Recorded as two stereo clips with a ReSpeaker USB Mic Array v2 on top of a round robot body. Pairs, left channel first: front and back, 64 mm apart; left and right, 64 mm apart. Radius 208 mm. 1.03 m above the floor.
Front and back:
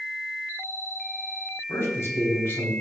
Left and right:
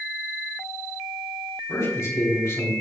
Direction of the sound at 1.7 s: 50° left.